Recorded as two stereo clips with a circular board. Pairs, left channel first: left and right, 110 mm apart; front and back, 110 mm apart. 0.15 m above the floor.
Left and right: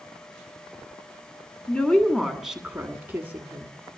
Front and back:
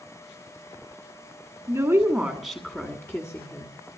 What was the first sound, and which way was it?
A woman speaking, 160° left.